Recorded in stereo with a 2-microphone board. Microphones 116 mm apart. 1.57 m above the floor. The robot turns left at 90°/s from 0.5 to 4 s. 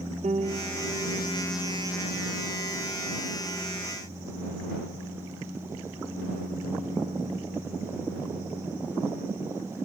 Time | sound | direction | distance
0.2 | a piano | 95° right | ?